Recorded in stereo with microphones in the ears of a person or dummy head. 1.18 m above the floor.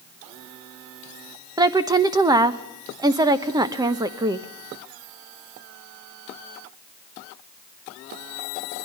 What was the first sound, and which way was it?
A woman speaking, 10° right (ahead or behind).